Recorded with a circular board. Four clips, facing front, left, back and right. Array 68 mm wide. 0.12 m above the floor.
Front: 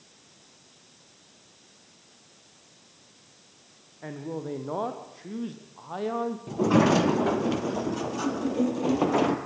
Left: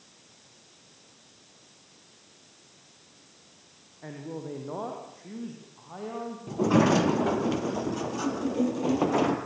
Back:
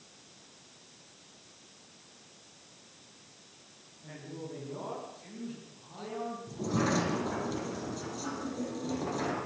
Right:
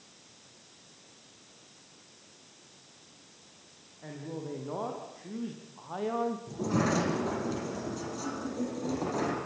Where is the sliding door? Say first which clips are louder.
Left 11 dB, front 10 dB; 35° left, 3 m.